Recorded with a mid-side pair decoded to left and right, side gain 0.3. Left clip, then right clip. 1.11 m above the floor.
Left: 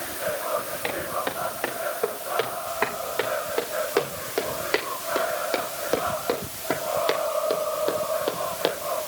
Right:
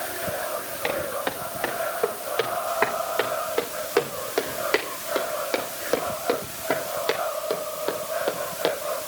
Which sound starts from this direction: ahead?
Footsteps, at 0.8 s.